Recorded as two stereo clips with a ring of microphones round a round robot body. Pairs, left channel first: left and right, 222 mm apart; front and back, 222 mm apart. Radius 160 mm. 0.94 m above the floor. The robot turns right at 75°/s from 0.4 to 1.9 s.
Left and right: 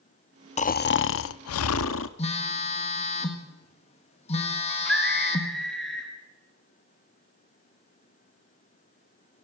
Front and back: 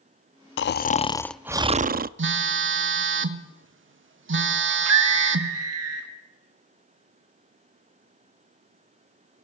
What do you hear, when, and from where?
0.6 s snoring: 30° left, 0.6 m; by 2.1 s 130° left, 0.6 m
2.2 s a phone buzzing: 155° left, 1.3 m
4.7 s a scream: straight behind, 1.3 m